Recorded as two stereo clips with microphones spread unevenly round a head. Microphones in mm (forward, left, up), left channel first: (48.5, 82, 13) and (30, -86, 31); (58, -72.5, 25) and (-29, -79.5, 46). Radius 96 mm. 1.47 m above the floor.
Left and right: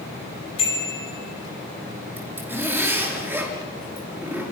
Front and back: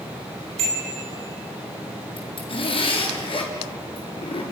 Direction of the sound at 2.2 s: 20° right.